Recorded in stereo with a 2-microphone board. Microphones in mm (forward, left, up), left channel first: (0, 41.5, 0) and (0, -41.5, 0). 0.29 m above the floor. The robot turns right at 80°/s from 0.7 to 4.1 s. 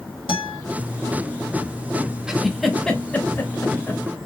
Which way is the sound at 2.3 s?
10° right (ahead or behind).